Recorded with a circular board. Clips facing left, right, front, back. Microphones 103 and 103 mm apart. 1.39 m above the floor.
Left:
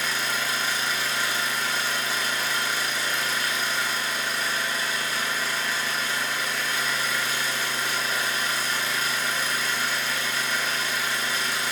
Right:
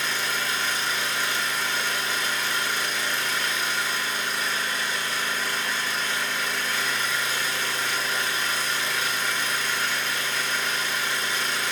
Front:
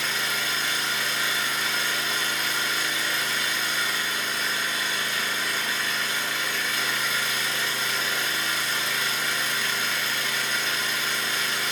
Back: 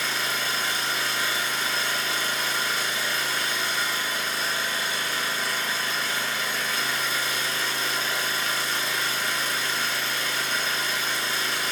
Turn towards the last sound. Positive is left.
turn(degrees=165)